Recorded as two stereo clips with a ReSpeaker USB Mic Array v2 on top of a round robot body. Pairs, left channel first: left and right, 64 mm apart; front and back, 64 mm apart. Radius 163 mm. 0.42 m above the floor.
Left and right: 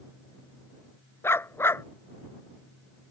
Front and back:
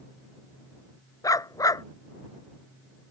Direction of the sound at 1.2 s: 35° left.